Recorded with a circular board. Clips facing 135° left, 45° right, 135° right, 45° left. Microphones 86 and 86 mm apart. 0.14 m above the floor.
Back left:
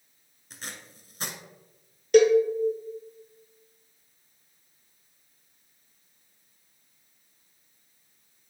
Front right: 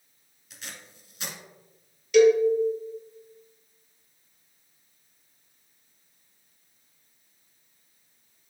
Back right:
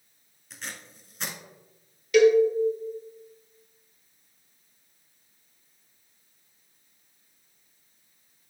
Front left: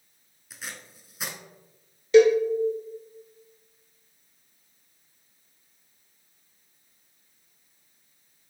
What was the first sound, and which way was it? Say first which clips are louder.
Tape being pulled: back left 2 dB, even; 125° left.